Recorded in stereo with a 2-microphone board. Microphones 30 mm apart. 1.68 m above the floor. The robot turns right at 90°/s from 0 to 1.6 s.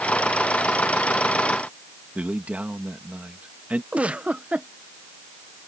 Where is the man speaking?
50° right (ahead or behind).